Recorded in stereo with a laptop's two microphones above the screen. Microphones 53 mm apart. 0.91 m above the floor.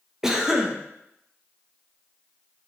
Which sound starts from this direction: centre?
A cough, at 0.2 s.